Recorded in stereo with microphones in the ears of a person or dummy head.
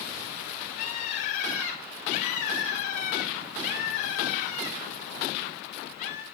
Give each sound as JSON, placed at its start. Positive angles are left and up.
{"t": 0.8, "sound": "a bird", "side_deg": 40, "distance_m": 1.7}